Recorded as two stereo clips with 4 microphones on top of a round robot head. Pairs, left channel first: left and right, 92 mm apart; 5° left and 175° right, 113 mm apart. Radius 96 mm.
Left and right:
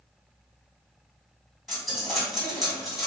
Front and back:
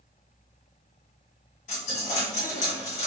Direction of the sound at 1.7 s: Straight ahead.